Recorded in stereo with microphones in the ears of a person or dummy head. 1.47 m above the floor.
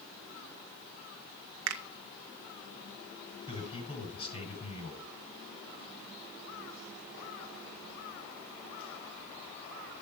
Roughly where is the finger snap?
Right.